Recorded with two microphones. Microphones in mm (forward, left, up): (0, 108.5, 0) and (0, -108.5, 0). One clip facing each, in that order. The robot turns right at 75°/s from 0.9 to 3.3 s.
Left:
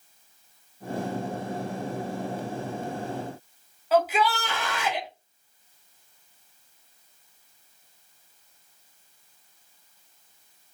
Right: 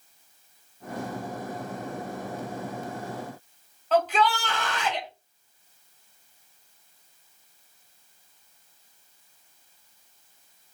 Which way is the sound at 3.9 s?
10° left (ahead or behind).